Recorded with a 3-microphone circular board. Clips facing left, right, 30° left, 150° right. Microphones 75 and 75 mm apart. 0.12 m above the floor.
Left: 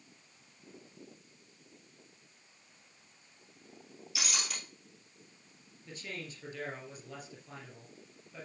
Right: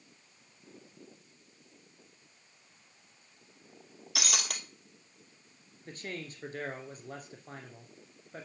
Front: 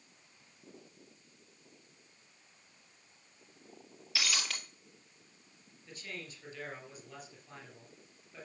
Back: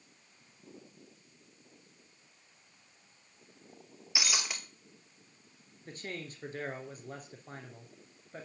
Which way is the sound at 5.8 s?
115° right.